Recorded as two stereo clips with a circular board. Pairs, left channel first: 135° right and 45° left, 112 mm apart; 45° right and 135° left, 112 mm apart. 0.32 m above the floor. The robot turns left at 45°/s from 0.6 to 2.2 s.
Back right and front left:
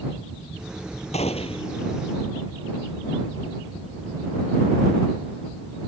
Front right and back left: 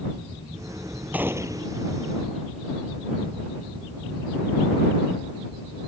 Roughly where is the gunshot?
Behind right.